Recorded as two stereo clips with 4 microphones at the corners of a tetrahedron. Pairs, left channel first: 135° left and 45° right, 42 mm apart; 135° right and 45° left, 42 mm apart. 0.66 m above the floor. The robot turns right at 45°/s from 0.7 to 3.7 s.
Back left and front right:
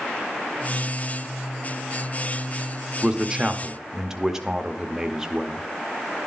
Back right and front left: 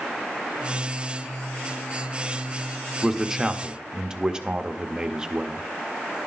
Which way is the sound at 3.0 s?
25° right.